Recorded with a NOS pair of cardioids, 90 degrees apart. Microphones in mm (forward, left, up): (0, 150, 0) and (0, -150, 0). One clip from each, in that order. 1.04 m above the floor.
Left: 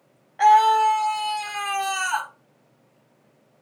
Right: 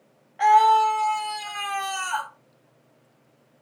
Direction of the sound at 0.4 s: 20° left.